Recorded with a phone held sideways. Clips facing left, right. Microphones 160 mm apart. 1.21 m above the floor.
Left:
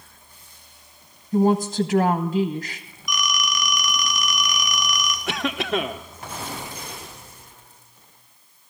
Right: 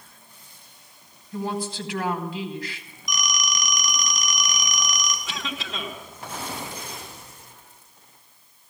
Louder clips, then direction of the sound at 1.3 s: Left 10 dB; 45° left (ahead or behind).